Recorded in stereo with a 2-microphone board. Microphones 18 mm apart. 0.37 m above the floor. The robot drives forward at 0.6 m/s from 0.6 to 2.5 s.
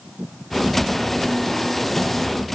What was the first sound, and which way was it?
Only background noise.